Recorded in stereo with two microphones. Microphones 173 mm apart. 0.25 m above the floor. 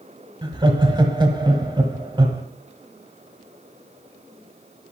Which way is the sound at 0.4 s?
25° right (ahead or behind).